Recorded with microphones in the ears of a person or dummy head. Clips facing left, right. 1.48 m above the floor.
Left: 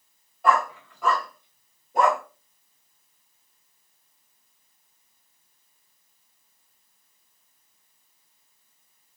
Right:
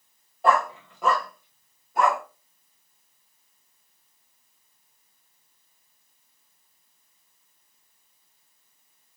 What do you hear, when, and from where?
0.4 s a dog barking: 35° right (ahead or behind), 1.7 m; by 2.2 s 30° left (ahead or behind), 1.4 m